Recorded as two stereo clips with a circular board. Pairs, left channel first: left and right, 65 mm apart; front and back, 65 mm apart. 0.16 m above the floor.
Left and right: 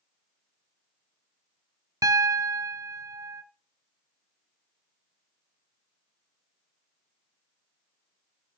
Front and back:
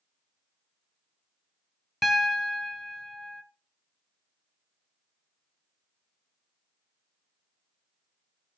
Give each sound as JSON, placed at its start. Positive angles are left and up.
{"t": 2.0, "sound": "a piano", "azimuth_deg": -90, "distance_m": 0.7}